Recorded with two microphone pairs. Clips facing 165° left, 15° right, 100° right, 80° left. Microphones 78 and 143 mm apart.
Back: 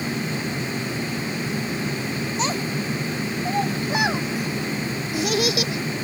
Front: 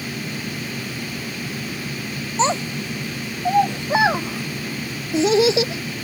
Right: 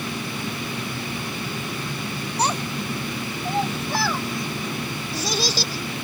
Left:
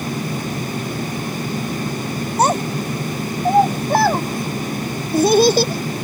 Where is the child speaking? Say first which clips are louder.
Front 8 dB, left 8 dB; 40° left; by 6.0 s 45° left.